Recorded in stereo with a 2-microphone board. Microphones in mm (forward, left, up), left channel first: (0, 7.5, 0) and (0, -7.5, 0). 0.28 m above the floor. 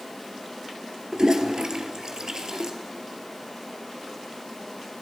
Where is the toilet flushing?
55° right (ahead or behind), 1.6 m.